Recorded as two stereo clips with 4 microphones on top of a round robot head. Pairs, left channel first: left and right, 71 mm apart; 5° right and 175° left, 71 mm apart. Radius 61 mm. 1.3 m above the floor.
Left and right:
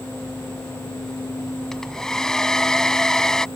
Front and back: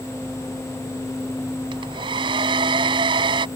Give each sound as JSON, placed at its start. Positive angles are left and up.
{"t": 1.7, "sound": "a hair dryer", "azimuth_deg": 170}